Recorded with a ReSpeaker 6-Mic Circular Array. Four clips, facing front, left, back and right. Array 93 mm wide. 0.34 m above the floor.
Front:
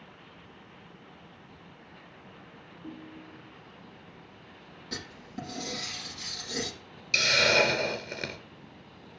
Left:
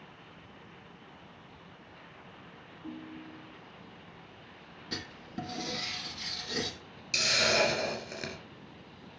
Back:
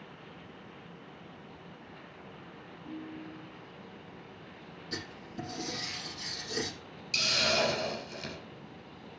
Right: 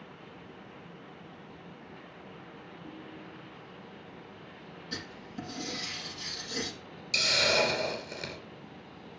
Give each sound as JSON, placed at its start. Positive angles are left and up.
{"t": 2.8, "sound": "a ringtone", "azimuth_deg": 20, "distance_m": 4.0}
{"t": 4.9, "sound": "writing", "azimuth_deg": 55, "distance_m": 6.5}
{"t": 7.1, "sound": "a hiss", "azimuth_deg": 15, "distance_m": 2.5}